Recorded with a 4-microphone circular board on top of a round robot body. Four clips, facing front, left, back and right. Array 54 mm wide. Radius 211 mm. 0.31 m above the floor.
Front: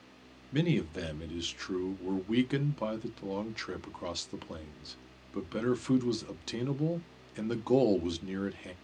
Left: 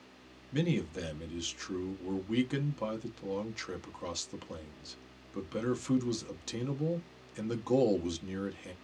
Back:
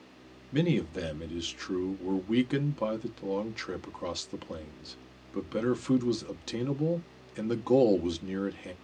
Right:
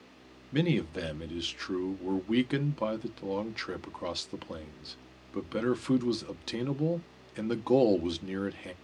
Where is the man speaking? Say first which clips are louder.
Right 4 dB, back 2 dB; 90° right, 0.9 m.